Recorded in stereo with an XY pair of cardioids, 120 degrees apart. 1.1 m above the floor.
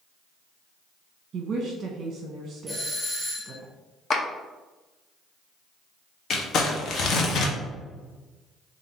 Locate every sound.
1.3 s a woman speaking: 40° right, 0.8 m
2.7 s a doorbell: 10° right, 1.9 m
4.1 s a clap: 40° left, 0.9 m
6.3 s crumpling: 55° left, 0.8 m